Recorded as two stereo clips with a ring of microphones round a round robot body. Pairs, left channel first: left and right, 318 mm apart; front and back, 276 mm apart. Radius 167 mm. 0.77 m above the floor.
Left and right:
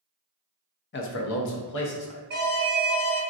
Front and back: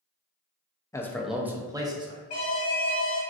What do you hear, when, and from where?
0.9 s a man speaking: 70° left, 0.5 m; by 2.2 s 110° left, 1.0 m
2.3 s an alarm: 50° right, 0.9 m